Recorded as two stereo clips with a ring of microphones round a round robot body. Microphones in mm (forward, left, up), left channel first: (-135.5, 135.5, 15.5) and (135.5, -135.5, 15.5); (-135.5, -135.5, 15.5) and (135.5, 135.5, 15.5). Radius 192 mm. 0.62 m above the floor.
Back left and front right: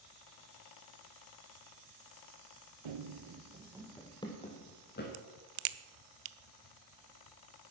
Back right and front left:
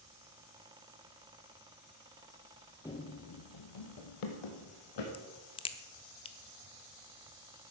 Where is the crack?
60° right, 0.7 m.